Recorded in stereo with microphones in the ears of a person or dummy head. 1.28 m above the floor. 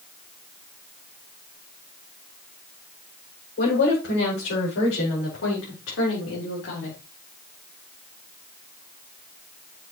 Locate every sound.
3.6 s a woman speaking: 60° left (ahead or behind), 6.5 m; by 7.0 s 65° left (ahead or behind), 4 m